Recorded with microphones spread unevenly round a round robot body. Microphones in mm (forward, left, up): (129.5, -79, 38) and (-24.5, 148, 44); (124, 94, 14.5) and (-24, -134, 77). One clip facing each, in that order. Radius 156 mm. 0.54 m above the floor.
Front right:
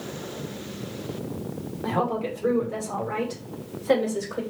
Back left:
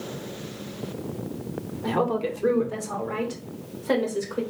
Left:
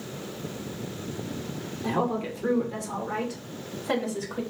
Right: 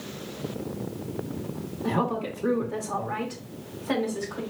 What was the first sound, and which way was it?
A woman speaking, 90° left.